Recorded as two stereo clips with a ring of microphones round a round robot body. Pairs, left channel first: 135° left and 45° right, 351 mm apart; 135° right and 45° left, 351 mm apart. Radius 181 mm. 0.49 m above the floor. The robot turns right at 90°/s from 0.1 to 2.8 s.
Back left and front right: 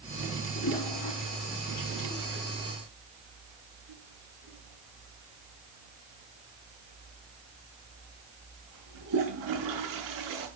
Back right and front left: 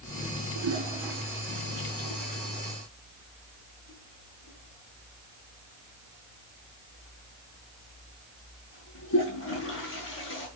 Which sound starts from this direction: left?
A toilet flushing, at 0.6 s.